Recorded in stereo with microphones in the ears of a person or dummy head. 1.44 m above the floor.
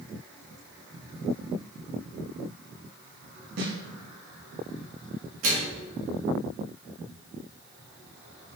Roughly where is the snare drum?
Right.